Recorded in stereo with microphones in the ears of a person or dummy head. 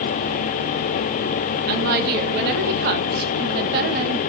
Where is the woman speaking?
60° right (ahead or behind), 1.7 m.